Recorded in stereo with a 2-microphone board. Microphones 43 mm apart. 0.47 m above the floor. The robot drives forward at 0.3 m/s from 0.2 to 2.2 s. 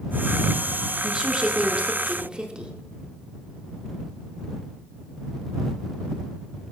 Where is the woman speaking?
20° right (ahead or behind), 0.7 m.